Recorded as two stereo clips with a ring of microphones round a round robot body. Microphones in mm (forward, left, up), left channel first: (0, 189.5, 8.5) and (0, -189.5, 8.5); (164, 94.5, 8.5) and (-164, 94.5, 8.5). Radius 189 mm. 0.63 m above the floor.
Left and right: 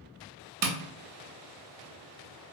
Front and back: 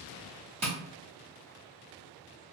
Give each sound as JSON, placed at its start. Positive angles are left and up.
{"t": 0.6, "sound": "tapping", "azimuth_deg": -110, "distance_m": 0.6}